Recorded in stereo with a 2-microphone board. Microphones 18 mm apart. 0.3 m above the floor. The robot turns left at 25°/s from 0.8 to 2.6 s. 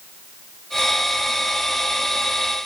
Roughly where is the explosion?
I don't hear an explosion.